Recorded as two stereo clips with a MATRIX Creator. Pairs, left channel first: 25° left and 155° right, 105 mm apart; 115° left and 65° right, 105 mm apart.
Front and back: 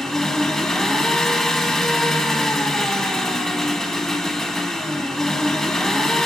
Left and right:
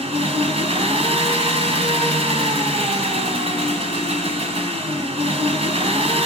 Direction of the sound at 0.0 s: 65° right.